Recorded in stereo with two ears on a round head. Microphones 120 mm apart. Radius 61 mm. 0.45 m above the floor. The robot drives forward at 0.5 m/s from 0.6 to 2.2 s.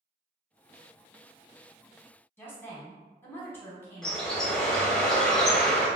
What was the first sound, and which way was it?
A woman speaking, 15° left (ahead or behind).